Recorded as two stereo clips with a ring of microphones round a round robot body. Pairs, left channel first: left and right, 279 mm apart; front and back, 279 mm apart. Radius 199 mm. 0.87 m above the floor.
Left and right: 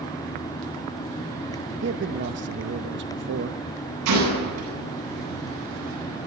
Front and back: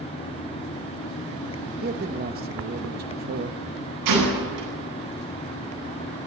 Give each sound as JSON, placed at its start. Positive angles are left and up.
{"t": 1.8, "sound": "a man speaking", "azimuth_deg": -130, "distance_m": 0.8}
{"t": 4.0, "sound": "a gunshot", "azimuth_deg": -140, "distance_m": 9.5}